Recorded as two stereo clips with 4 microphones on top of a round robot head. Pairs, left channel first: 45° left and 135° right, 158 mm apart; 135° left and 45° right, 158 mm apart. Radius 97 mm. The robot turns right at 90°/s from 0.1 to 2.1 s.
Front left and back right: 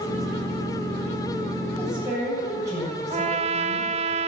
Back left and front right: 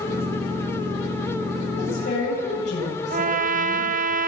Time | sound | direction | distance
1.8 | a woman speaking | 125° left | 8 m
3.1 | a trumpet | 85° right | 0.8 m